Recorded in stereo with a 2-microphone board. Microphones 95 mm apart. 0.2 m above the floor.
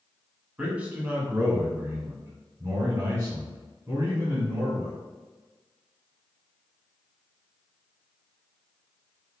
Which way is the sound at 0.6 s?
15° right (ahead or behind).